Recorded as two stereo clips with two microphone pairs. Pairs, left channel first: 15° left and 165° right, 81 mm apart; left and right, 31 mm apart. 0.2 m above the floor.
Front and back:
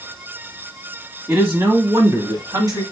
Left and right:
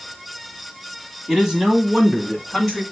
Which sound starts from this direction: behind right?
A man speaking, at 1.3 s.